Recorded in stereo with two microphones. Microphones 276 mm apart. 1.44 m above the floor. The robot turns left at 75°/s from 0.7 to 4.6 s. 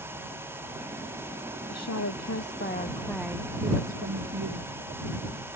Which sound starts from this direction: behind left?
A woman speaking, at 1.7 s.